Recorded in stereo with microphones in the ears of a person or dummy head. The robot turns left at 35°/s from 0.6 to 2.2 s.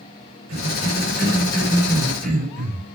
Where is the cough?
85° right, 6 m; by 3.0 s 40° right (ahead or behind), 6 m.